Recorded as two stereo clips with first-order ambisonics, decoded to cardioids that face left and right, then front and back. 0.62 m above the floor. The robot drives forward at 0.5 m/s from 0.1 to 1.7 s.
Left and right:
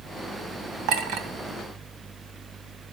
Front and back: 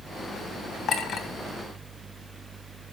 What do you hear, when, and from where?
0.9 s a clink: 55° right, 2 m; by 1.3 s 60° right, 2 m